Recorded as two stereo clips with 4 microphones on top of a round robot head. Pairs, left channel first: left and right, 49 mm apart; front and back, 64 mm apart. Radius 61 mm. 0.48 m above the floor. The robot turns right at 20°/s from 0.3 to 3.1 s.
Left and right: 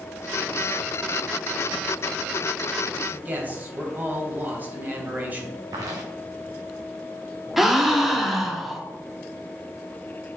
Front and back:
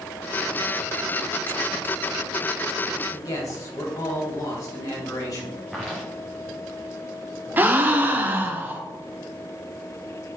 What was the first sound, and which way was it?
A man speaking, 35° right.